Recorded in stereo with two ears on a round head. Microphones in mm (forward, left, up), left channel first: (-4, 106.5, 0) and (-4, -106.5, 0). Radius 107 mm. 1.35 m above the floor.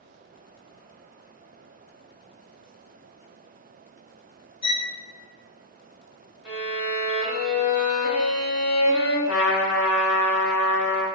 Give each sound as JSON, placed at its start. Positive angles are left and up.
{"t": 4.6, "sound": "a violin", "side_deg": 25, "distance_m": 0.5}
{"t": 6.5, "sound": "a violin", "side_deg": -5, "distance_m": 0.8}
{"t": 9.3, "sound": "a trumpet", "side_deg": 55, "distance_m": 0.9}